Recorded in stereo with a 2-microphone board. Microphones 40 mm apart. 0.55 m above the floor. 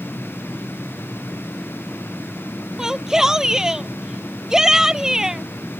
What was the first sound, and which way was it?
A shout, 10° right (ahead or behind).